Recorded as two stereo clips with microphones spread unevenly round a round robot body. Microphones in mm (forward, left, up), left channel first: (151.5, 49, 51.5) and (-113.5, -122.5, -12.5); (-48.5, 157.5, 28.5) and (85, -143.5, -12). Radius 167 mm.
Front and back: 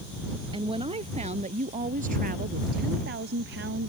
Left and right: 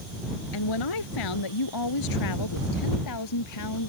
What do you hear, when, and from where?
0.5 s a woman speaking: 135° left; by 3.9 s 155° left